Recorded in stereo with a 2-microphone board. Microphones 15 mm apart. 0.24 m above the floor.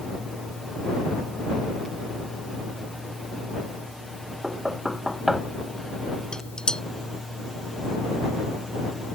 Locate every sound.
4.4 s knocking: 25° right (ahead or behind)
6.3 s dishes clattering: 65° left (ahead or behind)